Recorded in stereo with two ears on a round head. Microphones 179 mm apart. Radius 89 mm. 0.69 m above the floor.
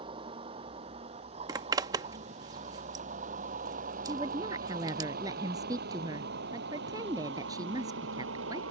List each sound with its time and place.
0.0 s a vehicle: 25° right (ahead or behind); by 8.7 s 70° right (ahead or behind)
1.5 s a zipper: 20° right (ahead or behind)
4.0 s a woman speaking: 20° right (ahead or behind)